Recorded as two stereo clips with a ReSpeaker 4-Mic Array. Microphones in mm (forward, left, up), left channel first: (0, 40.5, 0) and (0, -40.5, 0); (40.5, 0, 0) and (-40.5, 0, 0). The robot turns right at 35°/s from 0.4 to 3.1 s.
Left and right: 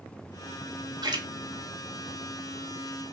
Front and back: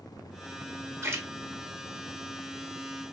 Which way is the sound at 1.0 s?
125° right.